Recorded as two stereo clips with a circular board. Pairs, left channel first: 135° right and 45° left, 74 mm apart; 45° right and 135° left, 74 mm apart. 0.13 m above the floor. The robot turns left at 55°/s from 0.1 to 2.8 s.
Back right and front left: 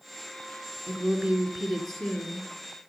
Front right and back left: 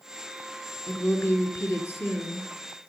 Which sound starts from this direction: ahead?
A woman speaking, at 0.9 s.